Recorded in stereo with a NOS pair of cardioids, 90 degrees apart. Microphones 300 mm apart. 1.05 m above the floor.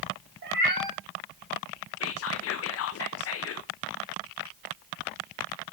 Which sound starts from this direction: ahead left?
Whispering, at 2.0 s.